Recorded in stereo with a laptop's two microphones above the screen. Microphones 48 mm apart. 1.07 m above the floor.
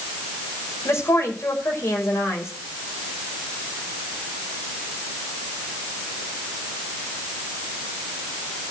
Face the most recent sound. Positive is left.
turn(degrees=85)